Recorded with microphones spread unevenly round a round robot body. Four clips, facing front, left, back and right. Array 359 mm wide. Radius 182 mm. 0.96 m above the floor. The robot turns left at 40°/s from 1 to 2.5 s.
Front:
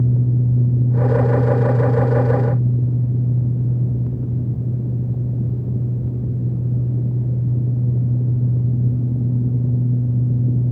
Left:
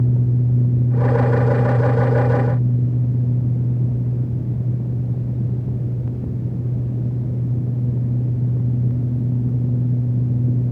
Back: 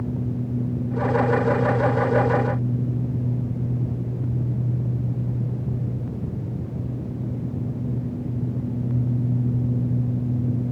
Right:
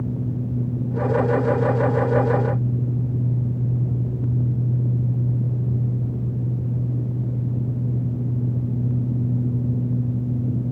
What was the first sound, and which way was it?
Only background noise.